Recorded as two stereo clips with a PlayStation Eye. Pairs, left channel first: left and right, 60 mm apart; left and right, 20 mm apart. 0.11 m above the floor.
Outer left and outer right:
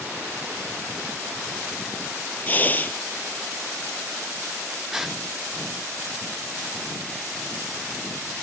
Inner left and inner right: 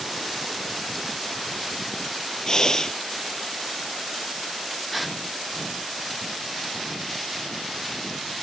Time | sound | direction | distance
2.5 | breathing | 30° left (ahead or behind) | ?
4.9 | a gasp | 5° right (ahead or behind) | ?